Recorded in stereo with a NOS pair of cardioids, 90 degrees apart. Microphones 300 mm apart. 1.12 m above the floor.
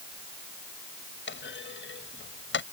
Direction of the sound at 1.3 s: 40° left.